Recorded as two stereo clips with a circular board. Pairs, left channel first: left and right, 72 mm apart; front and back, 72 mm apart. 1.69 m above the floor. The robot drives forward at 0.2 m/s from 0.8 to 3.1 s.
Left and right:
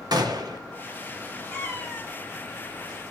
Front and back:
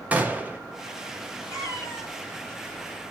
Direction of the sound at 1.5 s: 155° left.